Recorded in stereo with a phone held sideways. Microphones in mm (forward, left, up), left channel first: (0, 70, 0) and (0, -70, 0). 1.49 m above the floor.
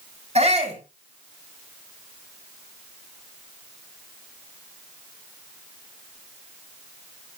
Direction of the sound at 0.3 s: 50° right (ahead or behind).